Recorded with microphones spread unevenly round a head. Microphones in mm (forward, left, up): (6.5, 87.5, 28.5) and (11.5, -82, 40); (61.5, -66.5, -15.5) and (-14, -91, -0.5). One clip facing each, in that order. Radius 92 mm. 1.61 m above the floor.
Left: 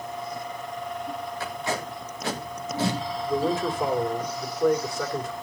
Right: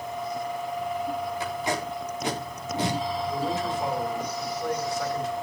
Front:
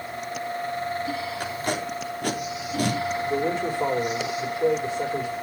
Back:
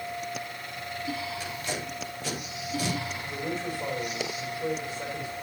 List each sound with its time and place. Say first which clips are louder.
1.4 s tape being pulled: right 1 dB, front 6 dB; 15° right, 4 m
3.3 s a man speaking: left 7 dB, front 7 dB; 45° left, 4 m